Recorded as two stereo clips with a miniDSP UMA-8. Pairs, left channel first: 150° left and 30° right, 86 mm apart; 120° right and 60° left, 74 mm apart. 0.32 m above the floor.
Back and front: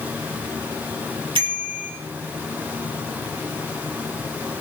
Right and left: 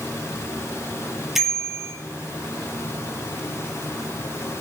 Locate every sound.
1.4 s a bicycle bell: 30° right, 5.5 m